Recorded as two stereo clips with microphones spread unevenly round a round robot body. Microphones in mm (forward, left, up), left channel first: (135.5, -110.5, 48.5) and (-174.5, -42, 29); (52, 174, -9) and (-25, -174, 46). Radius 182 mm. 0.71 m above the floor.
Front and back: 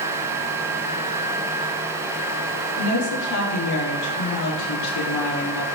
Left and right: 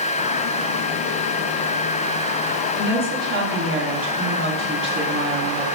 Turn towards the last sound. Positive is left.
turn(degrees=-45)